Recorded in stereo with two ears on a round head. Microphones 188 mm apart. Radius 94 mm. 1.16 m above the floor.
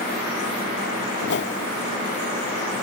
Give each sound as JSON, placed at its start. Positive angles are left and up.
{"t": 1.2, "sound": "a whoosh", "side_deg": 55}